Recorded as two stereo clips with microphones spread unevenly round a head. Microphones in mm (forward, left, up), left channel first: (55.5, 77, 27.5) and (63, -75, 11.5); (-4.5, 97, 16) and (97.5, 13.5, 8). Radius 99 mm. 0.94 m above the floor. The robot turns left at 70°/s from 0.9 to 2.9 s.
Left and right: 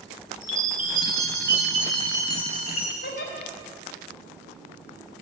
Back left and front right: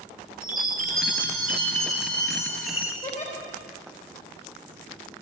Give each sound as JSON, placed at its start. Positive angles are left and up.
{"t": 0.4, "sound": "a chime", "azimuth_deg": -50, "distance_m": 2.5}
{"t": 3.0, "sound": "a giggle", "azimuth_deg": 115, "distance_m": 4.0}